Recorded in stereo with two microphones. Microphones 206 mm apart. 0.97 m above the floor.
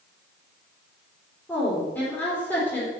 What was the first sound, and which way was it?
A woman speaking, 10° left (ahead or behind).